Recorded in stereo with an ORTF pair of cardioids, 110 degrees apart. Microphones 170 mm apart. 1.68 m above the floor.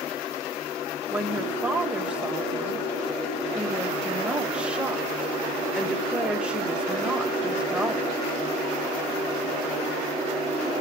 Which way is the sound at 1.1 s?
5° right.